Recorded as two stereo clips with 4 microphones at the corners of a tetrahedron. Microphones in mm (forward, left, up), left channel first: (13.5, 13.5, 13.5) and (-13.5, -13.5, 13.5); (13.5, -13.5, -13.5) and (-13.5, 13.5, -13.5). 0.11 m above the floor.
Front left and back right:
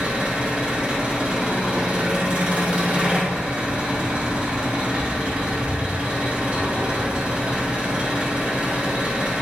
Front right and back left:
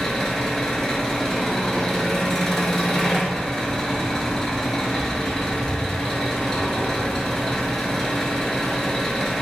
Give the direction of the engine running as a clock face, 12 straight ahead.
4 o'clock.